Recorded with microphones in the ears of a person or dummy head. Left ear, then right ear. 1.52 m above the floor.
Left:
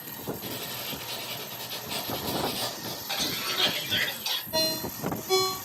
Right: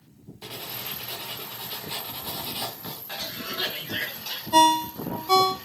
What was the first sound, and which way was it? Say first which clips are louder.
Writing: right 5 dB; 10° right (ahead or behind).